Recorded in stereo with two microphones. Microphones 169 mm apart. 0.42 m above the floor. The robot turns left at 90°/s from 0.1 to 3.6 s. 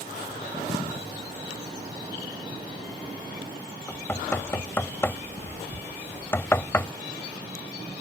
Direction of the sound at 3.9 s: 15° left (ahead or behind).